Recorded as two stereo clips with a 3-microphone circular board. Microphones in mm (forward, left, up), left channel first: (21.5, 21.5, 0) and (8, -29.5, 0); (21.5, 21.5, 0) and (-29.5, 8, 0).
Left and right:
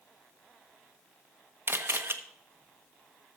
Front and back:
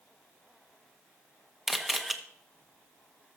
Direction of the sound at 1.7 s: 80° right.